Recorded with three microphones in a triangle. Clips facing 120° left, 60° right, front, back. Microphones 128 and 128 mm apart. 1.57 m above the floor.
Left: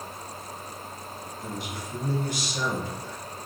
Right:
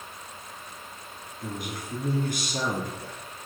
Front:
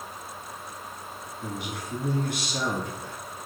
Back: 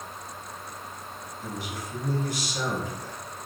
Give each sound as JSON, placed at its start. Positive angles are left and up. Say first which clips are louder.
{"t": 1.4, "sound": "a man speaking", "louder": "right 2 dB, front 1 dB", "azimuth_deg": -25, "distance_m": 2.5}